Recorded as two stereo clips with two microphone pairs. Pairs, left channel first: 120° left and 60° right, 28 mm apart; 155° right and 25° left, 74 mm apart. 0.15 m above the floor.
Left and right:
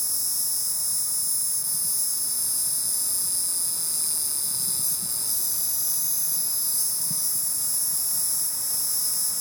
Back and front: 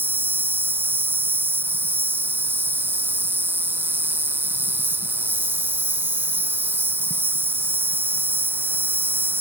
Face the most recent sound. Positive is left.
turn(degrees=35)